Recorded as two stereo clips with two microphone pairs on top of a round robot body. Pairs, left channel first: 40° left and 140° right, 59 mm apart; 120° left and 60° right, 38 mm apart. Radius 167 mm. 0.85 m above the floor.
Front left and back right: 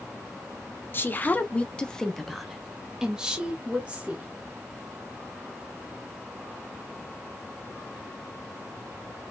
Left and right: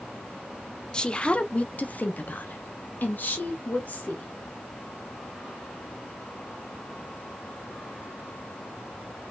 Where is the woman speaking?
60° left, 1.0 m; by 4.3 s 155° left, 1.8 m.